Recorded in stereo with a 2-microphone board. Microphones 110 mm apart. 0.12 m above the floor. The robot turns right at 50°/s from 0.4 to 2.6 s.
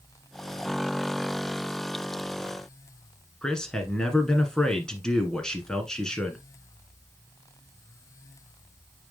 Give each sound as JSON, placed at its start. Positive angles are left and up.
{"t": 3.4, "sound": "a man speaking", "side_deg": 5, "distance_m": 1.4}